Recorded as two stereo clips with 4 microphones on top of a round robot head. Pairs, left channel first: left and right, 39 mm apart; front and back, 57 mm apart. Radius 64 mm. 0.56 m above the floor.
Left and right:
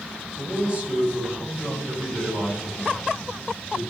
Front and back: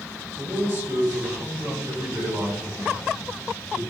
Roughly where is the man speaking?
Behind right.